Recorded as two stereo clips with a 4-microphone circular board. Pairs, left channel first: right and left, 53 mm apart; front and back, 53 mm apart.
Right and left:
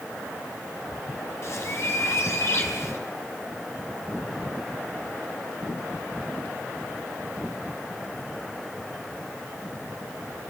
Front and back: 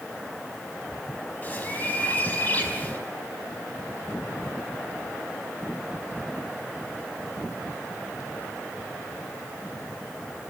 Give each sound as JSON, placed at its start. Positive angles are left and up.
{"t": 1.4, "sound": "a bird", "azimuth_deg": -60, "distance_m": 4.0}